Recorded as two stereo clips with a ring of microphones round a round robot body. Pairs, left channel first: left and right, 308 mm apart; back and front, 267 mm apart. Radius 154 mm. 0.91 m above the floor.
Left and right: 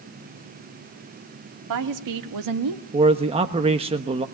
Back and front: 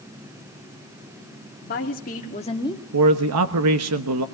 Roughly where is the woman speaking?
Behind right.